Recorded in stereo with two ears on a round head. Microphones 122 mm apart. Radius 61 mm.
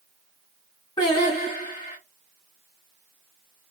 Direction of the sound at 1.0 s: 35° left (ahead or behind).